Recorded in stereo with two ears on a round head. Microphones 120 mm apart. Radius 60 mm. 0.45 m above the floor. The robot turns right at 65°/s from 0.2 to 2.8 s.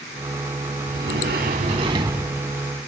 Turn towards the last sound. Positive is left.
turn(degrees=20)